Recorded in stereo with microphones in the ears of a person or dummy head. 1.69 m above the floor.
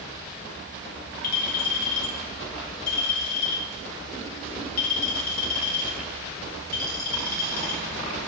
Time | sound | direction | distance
1.2 | a clink | 50° left (ahead or behind) | 2 m